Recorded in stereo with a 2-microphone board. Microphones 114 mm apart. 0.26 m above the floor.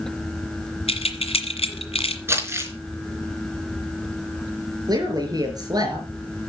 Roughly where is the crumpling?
Right.